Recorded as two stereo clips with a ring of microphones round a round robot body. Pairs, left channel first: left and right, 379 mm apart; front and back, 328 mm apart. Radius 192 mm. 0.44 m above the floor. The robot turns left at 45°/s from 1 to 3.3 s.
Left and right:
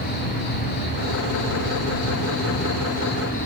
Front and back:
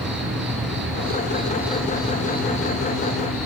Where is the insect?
125° left, 4.5 m; by 3.5 s 20° left, 4.5 m.